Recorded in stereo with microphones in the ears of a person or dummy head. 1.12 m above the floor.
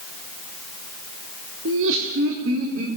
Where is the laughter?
65° right (ahead or behind), 3 m; by 2.9 s 75° right (ahead or behind), 4.5 m.